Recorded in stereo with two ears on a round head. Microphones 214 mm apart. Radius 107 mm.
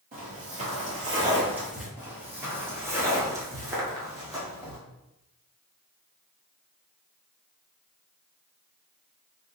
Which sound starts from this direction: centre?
Footsteps, at 2.0 s.